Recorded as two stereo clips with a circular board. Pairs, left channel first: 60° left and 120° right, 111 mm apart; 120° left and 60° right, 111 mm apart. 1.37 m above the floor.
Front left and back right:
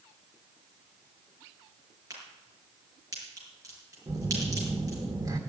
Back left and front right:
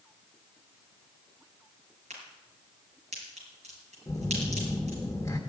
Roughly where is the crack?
Ahead right.